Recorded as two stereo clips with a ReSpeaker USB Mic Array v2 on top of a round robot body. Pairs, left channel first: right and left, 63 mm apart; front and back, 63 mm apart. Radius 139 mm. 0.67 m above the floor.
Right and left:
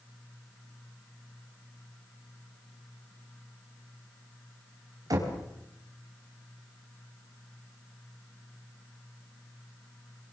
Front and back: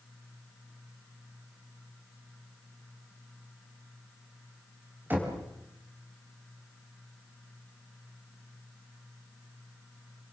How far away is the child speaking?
No child speaking in this recording.